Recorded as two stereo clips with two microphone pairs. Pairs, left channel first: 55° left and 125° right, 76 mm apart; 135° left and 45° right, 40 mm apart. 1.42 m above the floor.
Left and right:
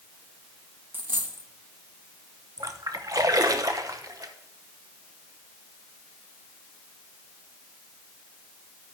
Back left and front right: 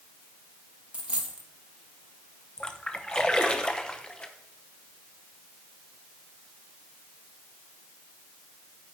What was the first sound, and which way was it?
A dropped coin, 80° right.